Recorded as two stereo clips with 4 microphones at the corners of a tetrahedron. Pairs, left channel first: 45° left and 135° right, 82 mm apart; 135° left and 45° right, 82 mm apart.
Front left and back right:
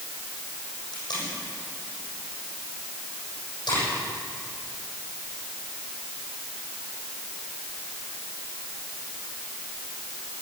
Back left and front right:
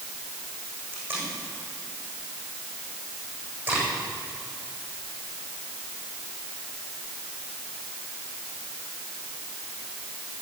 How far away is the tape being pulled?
About 7.5 m.